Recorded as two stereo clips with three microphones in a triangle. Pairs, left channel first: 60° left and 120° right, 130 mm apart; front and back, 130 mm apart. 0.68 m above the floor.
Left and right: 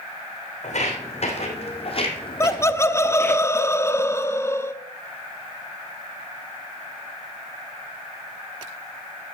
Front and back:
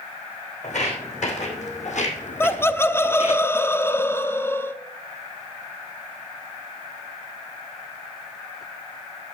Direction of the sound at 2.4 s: 35° left.